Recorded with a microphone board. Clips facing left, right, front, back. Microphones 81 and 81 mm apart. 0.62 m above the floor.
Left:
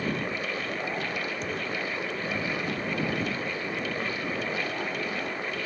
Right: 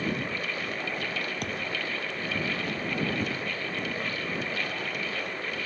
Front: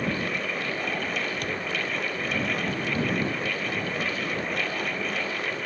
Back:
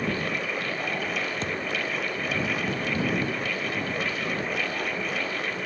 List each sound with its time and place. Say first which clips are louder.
1.4 s a thud: left 1 dB, back 1 dB; 115° right